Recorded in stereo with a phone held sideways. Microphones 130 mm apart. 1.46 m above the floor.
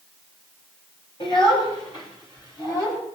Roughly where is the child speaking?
Left.